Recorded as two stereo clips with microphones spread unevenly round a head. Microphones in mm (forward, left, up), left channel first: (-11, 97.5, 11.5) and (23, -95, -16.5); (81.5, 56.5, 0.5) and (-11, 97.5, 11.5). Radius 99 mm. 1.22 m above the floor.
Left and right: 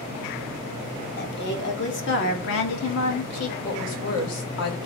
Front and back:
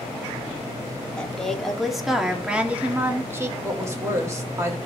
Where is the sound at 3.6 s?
95° left, 3.5 m.